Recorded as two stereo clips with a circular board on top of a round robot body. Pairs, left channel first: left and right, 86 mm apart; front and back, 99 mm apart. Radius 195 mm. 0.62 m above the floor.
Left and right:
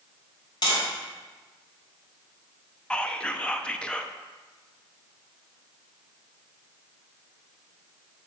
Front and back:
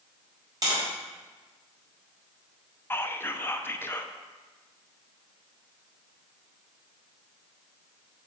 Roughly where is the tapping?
Behind left.